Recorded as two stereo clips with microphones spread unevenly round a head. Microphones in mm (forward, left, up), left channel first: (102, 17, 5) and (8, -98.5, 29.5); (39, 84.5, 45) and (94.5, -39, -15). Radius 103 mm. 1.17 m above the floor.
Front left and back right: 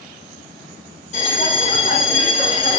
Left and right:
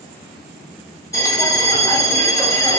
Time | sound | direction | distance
1.1 | a bell | 100° left | 1.0 m